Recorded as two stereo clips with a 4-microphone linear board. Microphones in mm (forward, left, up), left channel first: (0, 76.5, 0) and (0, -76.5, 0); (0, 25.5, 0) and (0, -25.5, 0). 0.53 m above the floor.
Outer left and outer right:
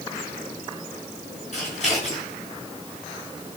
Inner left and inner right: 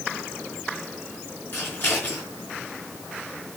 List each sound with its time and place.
1.5 s scissors: 45° left (ahead or behind), 5 m